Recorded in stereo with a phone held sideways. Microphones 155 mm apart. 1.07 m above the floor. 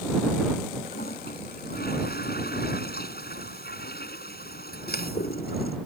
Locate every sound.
0.9 s a toilet flushing: 80° left